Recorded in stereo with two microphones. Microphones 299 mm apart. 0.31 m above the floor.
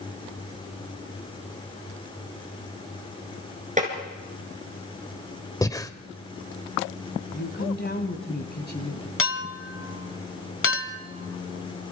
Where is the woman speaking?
30° left (ahead or behind), 2.0 m.